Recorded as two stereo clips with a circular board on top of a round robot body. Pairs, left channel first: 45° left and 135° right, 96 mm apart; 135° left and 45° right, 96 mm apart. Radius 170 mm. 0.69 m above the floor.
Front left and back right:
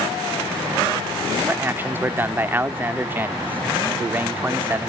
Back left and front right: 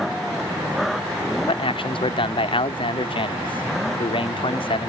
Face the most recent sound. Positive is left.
turn(degrees=155)